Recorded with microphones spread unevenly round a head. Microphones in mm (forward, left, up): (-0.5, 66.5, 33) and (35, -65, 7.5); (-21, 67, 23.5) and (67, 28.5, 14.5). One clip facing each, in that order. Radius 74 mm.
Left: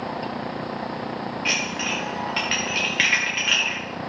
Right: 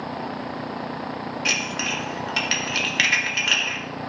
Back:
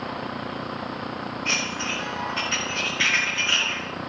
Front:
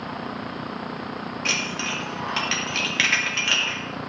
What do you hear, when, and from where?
1.4 s dishes clattering: 35° right, 2 m